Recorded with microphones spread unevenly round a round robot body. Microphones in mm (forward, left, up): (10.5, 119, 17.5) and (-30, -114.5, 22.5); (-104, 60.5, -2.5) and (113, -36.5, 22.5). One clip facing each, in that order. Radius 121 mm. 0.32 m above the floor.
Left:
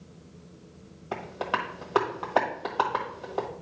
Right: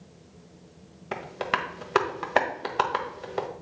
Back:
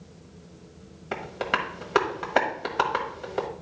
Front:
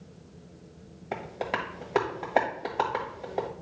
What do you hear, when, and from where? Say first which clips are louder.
1.1 s tapping: right 1 dB, back 2 dB; 145° right, 1.3 m